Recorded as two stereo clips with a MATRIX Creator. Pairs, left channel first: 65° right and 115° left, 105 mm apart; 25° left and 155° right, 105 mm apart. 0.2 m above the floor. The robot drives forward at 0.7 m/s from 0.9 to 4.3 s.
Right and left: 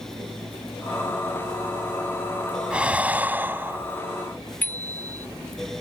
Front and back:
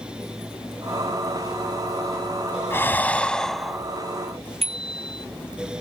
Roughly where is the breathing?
Ahead left.